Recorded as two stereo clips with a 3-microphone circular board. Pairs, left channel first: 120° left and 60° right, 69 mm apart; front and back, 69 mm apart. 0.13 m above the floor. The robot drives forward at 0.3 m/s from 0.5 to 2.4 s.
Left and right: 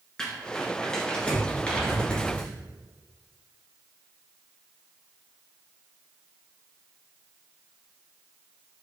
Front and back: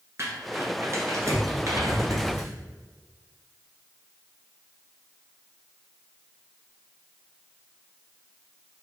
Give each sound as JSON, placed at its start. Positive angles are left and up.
{"t": 0.2, "sound": "crumpling", "azimuth_deg": -165, "distance_m": 1.2}